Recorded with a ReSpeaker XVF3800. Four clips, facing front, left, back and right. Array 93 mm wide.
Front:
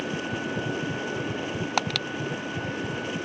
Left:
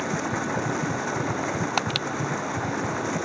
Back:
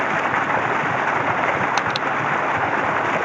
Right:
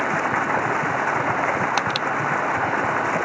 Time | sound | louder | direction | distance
0.0 | running water | right 6 dB, back 11 dB | 150° right | ?